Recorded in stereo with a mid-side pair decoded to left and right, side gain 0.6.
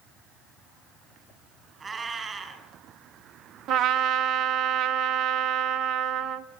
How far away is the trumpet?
About 1.4 m.